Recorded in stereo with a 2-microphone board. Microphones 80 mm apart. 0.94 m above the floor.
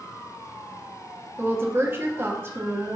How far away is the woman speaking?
About 1.4 m.